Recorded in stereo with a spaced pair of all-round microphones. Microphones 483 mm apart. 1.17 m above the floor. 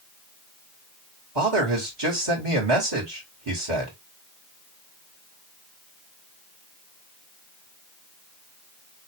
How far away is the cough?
No cough in this recording.